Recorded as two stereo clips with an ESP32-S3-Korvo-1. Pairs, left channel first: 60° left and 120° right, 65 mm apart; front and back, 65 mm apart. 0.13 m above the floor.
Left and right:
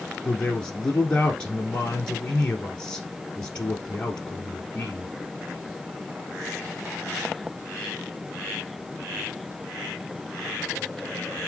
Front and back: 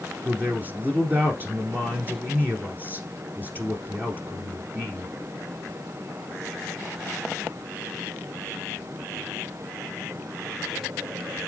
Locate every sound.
0.2 s a man speaking: 130° left, 1.7 m